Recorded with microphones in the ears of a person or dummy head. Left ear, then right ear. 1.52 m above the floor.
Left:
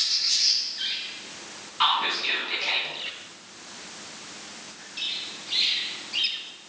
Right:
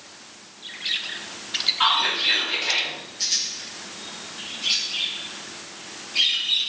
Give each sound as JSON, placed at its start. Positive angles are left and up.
{"t": 1.8, "sound": "whispering", "side_deg": 20, "distance_m": 0.7}